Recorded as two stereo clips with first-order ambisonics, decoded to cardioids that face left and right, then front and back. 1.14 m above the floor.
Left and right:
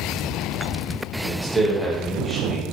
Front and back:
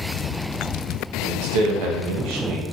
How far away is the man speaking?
About 0.8 m.